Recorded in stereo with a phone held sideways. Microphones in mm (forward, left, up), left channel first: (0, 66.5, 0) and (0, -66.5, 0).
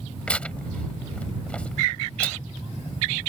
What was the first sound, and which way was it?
Tearing paper, 10° left (ahead or behind).